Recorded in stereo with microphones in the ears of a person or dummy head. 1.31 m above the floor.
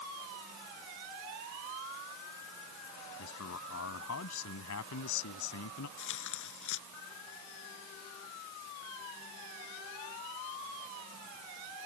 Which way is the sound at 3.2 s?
75° left (ahead or behind).